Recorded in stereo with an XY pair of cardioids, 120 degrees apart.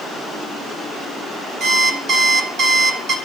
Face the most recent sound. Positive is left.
turn(degrees=-65)